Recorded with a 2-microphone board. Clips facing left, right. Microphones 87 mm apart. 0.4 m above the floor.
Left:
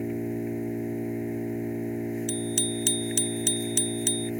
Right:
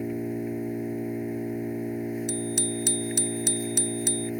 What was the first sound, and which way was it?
An engine running, 5° right (ahead or behind).